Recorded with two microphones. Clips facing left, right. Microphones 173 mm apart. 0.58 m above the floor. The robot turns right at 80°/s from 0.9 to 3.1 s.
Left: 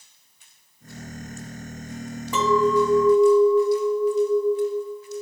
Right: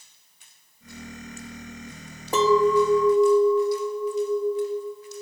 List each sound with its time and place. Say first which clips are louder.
2.3 s a clink: right 1 dB; 45° right, 0.7 m; by 5.2 s 15° left, 0.7 m